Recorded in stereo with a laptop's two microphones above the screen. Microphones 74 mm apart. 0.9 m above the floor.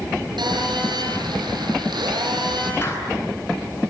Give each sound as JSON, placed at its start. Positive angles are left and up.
{"t": 0.4, "sound": "a phone buzzing", "side_deg": -75, "distance_m": 8.5}
{"t": 2.8, "sound": "a clap", "side_deg": 35, "distance_m": 10.0}